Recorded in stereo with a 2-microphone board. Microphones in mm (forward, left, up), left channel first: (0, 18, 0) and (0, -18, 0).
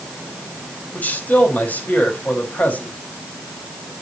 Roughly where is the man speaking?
Left.